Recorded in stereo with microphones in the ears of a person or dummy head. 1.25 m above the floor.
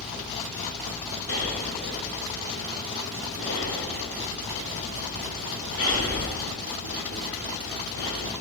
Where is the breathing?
70° left (ahead or behind), 1.1 m.